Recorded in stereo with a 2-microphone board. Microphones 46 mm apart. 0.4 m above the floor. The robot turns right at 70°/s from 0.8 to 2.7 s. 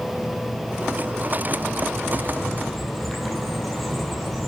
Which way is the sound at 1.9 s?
120° left.